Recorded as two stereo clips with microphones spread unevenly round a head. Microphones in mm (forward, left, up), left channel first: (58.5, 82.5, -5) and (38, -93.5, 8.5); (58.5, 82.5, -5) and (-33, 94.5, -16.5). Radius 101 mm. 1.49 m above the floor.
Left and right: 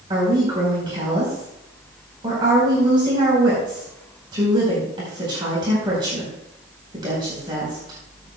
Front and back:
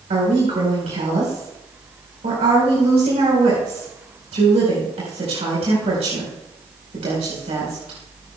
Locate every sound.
0.1 s a woman speaking: 165° right, 4.5 m